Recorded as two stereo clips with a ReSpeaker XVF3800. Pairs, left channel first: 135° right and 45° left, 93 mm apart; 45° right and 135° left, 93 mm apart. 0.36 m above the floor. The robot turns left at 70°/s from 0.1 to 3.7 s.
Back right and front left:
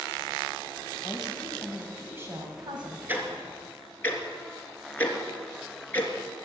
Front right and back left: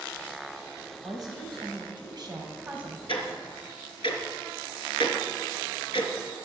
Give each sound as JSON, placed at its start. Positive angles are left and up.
{"t": 1.0, "sound": "a woman speaking", "azimuth_deg": -170, "distance_m": 2.5}
{"t": 3.1, "sound": "ticking", "azimuth_deg": -25, "distance_m": 3.0}